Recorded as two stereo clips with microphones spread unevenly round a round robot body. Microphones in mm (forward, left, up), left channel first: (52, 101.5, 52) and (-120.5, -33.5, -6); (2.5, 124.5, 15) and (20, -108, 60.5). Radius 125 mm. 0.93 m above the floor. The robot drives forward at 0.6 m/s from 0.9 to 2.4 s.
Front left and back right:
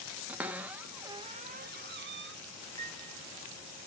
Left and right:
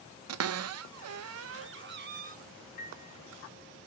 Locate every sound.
0.3 s a cupboard door: 70° right, 0.7 m; by 2.4 s 145° right, 1.0 m
2.8 s a piano: 155° left, 1.4 m